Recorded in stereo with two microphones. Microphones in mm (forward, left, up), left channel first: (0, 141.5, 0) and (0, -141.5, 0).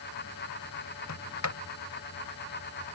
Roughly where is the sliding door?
Left.